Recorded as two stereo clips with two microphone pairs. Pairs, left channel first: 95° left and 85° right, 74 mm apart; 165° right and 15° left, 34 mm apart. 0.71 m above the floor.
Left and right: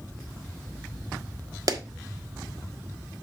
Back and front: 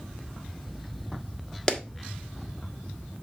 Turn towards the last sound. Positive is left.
turn(degrees=-105)